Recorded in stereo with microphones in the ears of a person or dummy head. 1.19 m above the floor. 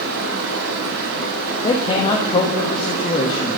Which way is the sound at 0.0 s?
75° right (ahead or behind).